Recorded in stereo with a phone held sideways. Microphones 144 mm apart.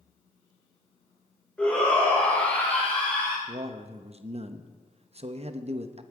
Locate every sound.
1.6 s a shout: 10° left (ahead or behind), 4 m
3.5 s a man speaking: 45° right (ahead or behind), 0.8 m